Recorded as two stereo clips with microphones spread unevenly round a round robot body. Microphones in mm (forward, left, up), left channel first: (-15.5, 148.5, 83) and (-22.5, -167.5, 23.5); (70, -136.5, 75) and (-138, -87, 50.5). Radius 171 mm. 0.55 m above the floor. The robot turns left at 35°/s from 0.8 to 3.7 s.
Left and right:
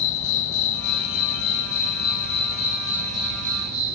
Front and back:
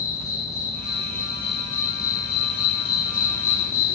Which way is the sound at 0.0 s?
65° left.